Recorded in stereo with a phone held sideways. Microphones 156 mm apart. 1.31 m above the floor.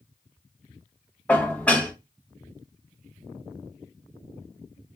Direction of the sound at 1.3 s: 10° left (ahead or behind).